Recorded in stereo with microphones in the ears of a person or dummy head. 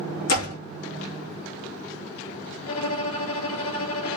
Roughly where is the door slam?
Left.